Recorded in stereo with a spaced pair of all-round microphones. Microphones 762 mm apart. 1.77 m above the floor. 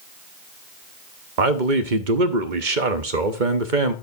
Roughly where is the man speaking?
Right.